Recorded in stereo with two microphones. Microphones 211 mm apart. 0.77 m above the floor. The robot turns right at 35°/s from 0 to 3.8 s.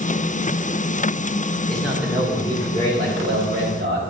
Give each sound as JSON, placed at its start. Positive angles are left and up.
{"t": 1.7, "sound": "a man speaking", "azimuth_deg": 175, "distance_m": 2.0}